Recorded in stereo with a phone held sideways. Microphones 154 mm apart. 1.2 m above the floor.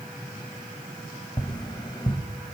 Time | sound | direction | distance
1.4 | tapping | 30° left (ahead or behind) | 1.3 m